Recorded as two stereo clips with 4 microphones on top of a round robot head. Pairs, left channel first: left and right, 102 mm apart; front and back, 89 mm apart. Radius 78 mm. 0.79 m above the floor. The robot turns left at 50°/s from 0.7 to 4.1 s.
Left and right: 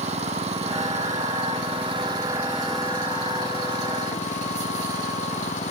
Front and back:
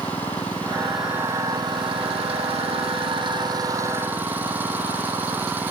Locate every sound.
0.0 s an engine running: 80° right; by 5.7 s 110° left